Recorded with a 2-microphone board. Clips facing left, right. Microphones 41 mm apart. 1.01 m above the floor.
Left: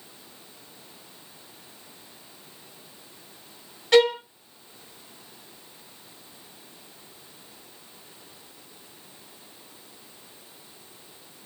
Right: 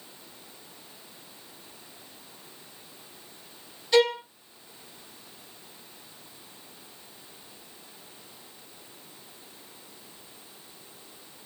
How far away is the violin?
About 1.5 m.